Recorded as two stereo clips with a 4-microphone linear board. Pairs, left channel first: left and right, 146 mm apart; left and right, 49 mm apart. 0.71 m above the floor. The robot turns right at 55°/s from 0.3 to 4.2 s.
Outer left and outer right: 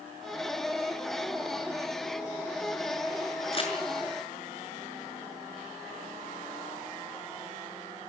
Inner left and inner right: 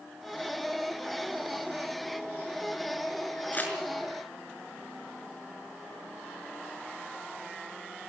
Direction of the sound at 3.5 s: 45° left (ahead or behind).